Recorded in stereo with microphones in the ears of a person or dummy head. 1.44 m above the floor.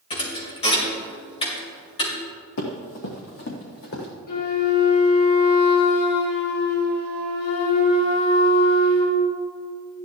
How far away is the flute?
About 2.5 m.